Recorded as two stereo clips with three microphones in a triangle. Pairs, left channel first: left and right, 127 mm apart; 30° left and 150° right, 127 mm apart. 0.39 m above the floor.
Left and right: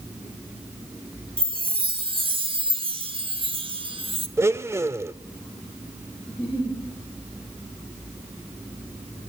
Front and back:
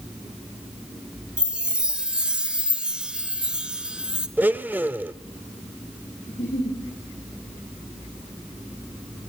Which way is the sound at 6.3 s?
5° left.